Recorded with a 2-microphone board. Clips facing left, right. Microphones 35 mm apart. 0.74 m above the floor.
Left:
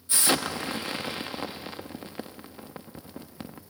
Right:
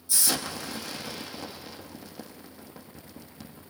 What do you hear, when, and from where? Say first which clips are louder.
0.1 s an explosion: left 4 dB; 40° left (ahead or behind), 1.2 m